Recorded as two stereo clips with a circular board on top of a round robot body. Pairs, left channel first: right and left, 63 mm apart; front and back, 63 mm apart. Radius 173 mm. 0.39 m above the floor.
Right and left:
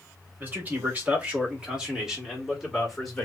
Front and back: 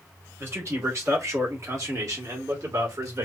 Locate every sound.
0.4 s a man speaking: 140° left, 2.5 m; by 3.2 s 175° right, 2 m